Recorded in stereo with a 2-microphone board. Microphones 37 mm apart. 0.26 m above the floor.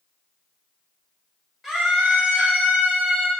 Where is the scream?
5° right (ahead or behind), 1.1 m; by 3.3 s 55° right (ahead or behind), 2.5 m.